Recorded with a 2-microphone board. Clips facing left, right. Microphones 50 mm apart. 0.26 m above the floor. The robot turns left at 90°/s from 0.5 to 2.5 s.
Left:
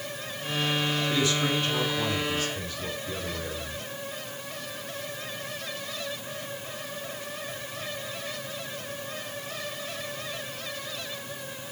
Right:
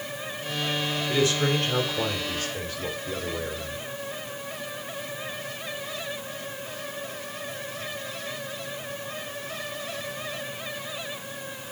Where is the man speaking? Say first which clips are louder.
Right 5 dB; 20° right, 6.5 m; by 3.9 s 150° right, 6.5 m.